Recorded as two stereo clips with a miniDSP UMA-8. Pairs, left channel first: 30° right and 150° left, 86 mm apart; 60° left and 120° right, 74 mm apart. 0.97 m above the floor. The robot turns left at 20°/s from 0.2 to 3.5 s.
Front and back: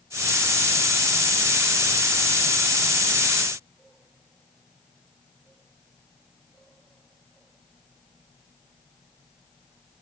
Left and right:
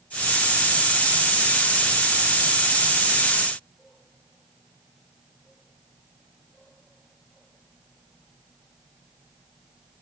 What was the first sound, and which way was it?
Only background noise.